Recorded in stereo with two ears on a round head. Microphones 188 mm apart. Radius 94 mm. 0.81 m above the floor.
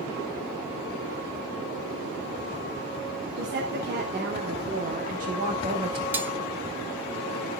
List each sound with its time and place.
3.4 s a woman speaking: 55° right (ahead or behind), 3 m; by 6.0 s 25° right (ahead or behind), 1.4 m
6.1 s cutlery clinking: 10° right (ahead or behind), 0.8 m